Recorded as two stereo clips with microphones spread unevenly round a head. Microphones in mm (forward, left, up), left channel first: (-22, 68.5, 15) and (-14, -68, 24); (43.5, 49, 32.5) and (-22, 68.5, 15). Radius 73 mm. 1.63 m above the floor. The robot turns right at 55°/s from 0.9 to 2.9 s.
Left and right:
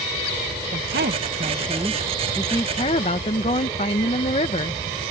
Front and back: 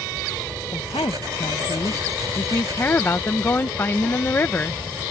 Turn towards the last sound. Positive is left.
turn(degrees=40)